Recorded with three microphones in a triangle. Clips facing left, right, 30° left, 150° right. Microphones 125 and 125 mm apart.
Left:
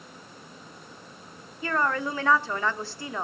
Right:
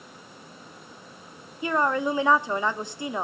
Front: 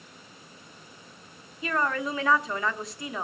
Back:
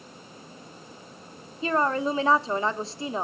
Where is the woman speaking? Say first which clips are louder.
Right 3 dB, back 4 dB; 145° right, 0.9 m.